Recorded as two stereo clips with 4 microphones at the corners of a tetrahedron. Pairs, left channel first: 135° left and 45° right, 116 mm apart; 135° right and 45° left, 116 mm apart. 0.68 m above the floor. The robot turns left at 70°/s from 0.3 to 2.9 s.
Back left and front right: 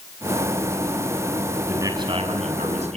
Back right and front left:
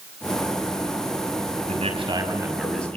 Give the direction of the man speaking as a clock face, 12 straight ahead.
11 o'clock.